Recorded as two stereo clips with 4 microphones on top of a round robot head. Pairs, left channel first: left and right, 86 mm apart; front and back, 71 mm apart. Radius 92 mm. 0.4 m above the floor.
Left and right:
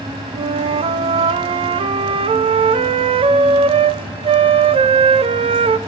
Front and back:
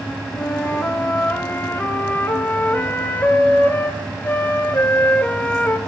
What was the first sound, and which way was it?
A flute, 70° right.